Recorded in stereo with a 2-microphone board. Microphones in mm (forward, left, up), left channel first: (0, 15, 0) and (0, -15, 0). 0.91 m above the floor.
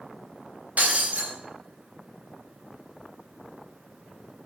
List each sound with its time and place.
0.8 s breaking glass: 55° right (ahead or behind), 3 m